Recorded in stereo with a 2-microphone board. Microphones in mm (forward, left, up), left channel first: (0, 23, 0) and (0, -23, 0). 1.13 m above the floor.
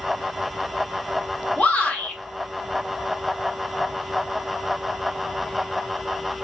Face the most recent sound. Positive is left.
turn(degrees=25)  # may be behind; listen again after turning